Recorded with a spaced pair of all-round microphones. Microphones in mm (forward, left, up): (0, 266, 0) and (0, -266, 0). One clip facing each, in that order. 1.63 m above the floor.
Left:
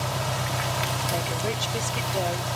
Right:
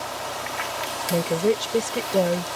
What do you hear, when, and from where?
0.0 s an engine running: 80° left
1.1 s a woman speaking: 70° right (ahead or behind)